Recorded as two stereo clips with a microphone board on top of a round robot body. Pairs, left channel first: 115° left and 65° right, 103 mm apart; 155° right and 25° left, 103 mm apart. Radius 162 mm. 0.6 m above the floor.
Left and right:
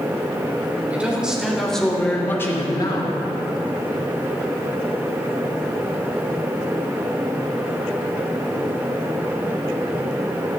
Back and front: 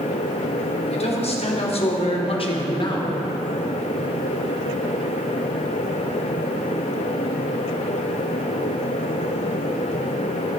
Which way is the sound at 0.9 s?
145° right.